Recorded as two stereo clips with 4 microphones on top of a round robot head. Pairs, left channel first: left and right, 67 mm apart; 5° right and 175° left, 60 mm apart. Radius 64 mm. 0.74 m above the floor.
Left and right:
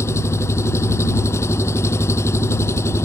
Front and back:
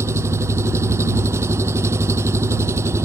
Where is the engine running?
135° left.